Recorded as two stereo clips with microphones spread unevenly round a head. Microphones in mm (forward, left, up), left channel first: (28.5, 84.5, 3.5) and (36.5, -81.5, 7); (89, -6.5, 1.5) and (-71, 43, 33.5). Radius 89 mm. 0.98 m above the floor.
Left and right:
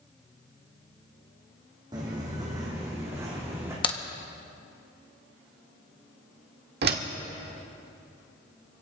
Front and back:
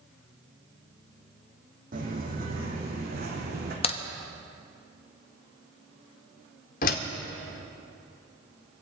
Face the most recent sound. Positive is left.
turn(degrees=-60)